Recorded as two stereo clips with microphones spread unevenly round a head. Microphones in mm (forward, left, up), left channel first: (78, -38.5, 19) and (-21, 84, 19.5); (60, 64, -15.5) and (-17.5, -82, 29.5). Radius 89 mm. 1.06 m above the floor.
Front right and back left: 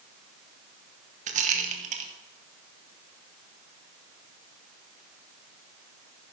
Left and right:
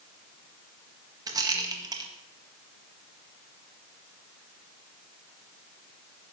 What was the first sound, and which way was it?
A rattle, 170° left.